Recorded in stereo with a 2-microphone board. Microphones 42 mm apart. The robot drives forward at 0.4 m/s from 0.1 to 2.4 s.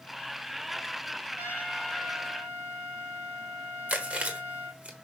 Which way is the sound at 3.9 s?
35° right (ahead or behind).